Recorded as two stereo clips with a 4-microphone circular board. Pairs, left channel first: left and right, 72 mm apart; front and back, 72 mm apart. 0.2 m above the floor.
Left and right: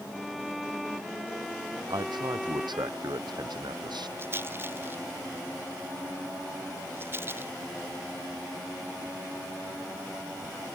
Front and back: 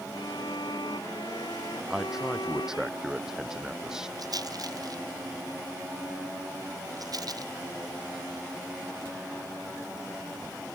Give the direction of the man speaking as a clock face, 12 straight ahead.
3 o'clock.